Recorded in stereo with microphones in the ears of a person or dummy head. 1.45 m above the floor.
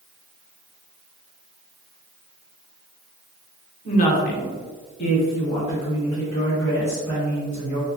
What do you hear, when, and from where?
3.9 s a woman speaking: 40° left (ahead or behind), 0.6 m; by 7.9 s 15° left (ahead or behind), 1.9 m